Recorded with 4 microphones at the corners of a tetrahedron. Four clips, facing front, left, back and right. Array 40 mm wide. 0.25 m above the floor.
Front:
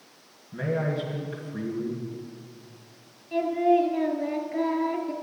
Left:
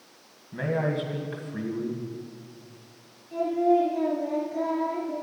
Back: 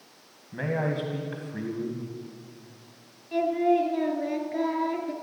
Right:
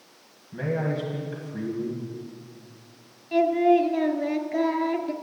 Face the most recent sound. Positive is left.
turn(degrees=-85)